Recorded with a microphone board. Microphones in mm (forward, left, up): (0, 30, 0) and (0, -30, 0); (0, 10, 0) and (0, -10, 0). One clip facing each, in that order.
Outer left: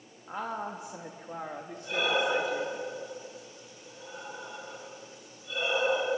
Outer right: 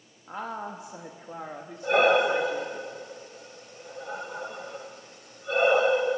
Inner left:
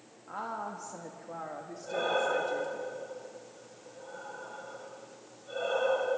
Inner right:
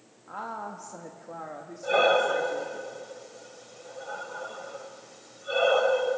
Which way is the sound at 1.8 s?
60° right (ahead or behind).